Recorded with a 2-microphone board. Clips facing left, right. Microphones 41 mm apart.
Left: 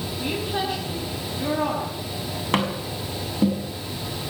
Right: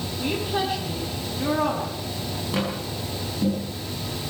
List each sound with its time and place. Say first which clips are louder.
0.2 s a woman speaking: right 1 dB; 5° left (ahead or behind), 6 m
2.5 s tapping: left 4 dB; 50° left (ahead or behind), 6 m